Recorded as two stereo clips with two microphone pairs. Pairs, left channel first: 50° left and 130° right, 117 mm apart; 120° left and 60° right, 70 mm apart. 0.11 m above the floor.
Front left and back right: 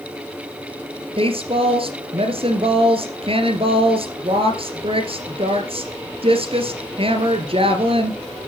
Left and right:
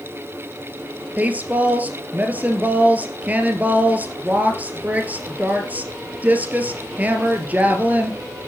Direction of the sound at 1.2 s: 120° right.